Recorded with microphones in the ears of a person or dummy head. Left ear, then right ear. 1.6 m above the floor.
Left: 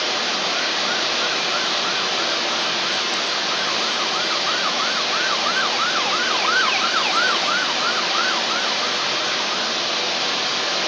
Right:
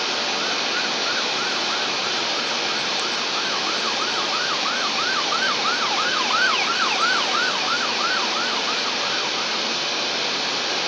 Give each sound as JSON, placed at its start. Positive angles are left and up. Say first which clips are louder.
{"t": 0.0, "sound": "running water", "louder": "left 2 dB", "side_deg": 65, "distance_m": 0.9}